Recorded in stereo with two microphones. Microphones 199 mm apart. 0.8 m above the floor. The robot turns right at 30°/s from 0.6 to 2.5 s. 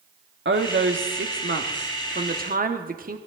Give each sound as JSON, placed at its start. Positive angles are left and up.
{"t": 0.5, "sound": "a woman speaking", "azimuth_deg": -105, "distance_m": 1.3}